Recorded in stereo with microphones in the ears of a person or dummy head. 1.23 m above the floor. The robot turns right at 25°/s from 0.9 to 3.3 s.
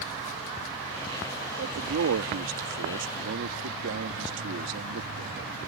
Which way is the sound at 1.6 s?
115° right.